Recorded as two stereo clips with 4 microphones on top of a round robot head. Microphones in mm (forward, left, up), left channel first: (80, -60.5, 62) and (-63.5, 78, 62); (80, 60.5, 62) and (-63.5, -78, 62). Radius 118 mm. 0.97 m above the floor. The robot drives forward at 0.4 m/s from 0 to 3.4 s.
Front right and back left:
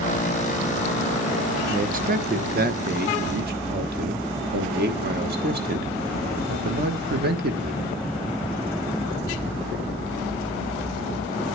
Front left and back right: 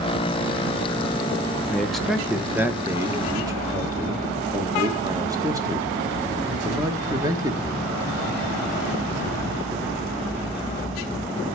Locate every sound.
1.7 s a man speaking: 125° left, 0.9 m; by 7.9 s 155° left, 1.3 m